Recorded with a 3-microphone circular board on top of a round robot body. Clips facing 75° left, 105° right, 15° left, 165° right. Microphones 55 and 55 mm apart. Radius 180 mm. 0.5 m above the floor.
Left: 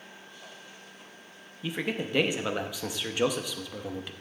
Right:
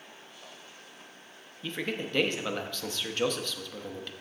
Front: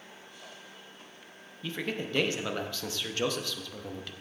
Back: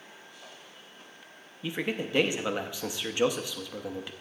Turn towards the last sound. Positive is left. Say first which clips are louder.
# left 2 dB, back 3 dB
turn(degrees=145)